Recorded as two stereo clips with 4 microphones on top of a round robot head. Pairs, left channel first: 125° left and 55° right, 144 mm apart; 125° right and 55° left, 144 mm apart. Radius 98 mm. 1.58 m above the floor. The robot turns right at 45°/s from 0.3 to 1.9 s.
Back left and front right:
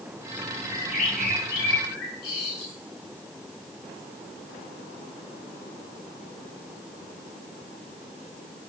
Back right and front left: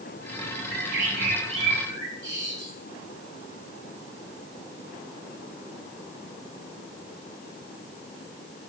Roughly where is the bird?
Left.